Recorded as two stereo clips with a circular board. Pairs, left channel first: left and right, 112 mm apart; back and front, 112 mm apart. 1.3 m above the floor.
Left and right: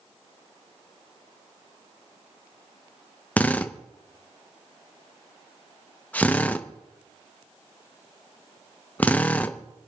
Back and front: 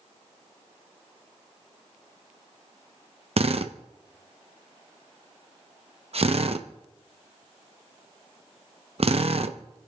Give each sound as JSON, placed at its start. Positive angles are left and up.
{"t": 3.4, "sound": "a drill", "azimuth_deg": 15, "distance_m": 0.8}